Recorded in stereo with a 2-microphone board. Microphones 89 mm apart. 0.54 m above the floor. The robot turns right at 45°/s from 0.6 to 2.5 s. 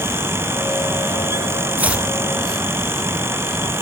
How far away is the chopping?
About 0.6 m.